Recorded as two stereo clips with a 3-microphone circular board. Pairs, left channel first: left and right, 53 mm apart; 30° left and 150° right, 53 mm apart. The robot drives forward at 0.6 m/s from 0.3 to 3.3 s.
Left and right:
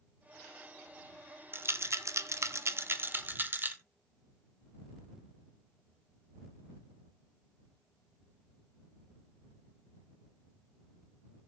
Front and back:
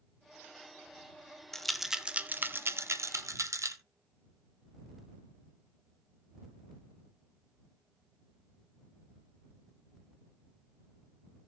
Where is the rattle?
50° right, 0.7 m; by 3.8 s 140° right, 0.9 m.